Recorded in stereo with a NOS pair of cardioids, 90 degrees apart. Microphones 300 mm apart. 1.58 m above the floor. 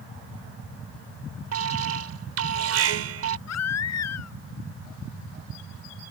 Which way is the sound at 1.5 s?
55° right.